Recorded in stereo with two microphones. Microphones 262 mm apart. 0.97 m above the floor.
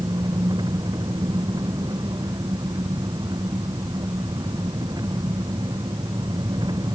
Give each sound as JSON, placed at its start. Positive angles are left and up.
{"t": 0.0, "sound": "an engine running", "side_deg": -15}